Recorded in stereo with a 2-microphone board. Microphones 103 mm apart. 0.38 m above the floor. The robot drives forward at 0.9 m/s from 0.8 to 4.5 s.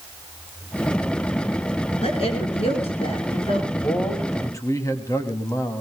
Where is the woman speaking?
75° left (ahead or behind), 5.5 m.